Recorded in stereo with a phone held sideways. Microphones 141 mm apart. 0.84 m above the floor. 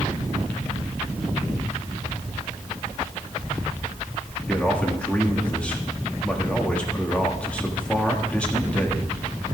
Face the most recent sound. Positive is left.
turn(degrees=10)  # may be behind; listen again after turning